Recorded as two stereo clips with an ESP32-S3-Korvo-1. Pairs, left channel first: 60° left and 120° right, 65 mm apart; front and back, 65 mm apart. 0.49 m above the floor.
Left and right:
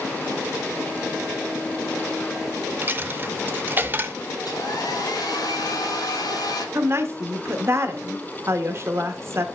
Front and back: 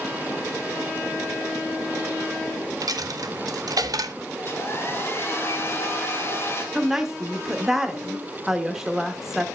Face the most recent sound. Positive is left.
turn(degrees=-100)